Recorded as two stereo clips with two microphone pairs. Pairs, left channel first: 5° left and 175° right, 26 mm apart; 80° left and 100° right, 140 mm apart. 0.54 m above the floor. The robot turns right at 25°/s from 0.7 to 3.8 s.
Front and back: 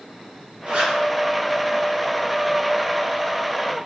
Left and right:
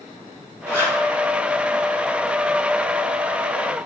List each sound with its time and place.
0.7 s a zipper: 150° left, 3 m; by 1.0 s 160° left, 3 m